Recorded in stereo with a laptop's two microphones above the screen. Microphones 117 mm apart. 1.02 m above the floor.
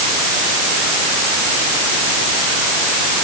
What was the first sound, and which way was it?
Only background noise.